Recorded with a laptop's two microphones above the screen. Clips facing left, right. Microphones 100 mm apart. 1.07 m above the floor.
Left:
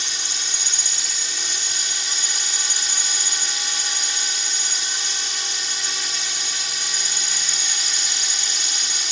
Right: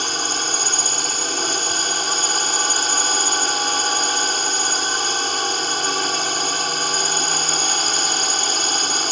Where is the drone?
55° right (ahead or behind).